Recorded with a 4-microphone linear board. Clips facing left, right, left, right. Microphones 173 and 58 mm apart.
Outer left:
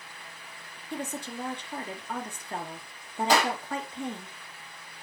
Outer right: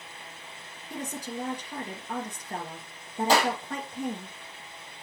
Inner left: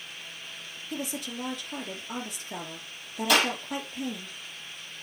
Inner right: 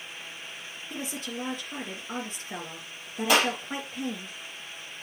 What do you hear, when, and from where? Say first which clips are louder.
0.9 s a woman speaking: even, inner left 1 dB; 40° right (ahead or behind), 3 m
3.3 s a clap: outer right 1 dB, inner right 1 dB; 30° right (ahead or behind), 5.5 m